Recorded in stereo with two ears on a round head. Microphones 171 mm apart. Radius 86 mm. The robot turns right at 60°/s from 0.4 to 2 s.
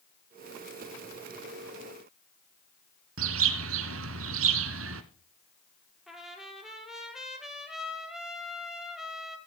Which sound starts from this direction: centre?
A trumpet, at 6.1 s.